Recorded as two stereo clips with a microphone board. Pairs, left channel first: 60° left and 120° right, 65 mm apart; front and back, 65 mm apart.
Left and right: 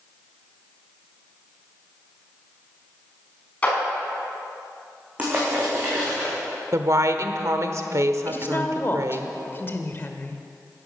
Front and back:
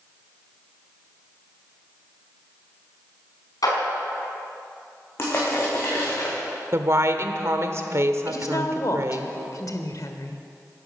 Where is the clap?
10° right, 5 m.